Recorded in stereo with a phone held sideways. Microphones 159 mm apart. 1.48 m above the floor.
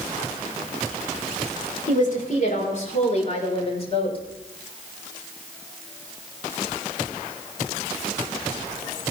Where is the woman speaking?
55° left (ahead or behind), 4.5 m; by 4.2 s 40° left (ahead or behind), 6.5 m.